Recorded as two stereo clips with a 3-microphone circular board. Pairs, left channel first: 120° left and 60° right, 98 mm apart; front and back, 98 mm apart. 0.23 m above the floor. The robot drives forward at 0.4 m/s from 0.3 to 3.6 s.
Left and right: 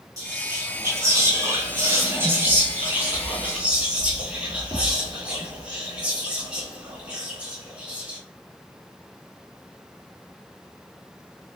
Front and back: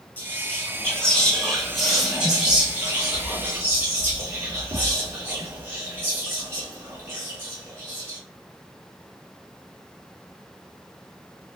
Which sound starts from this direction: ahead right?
Whispering, at 0.2 s.